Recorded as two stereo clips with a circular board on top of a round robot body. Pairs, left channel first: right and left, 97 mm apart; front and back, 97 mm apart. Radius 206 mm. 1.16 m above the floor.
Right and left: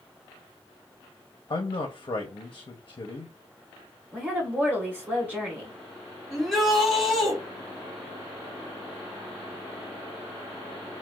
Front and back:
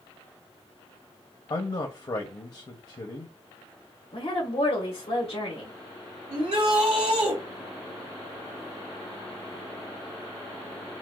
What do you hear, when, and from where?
1.5 s a man speaking: 45° right, 0.6 m
4.1 s a woman speaking: 20° left, 1.4 m
6.3 s a shout: straight behind, 2.5 m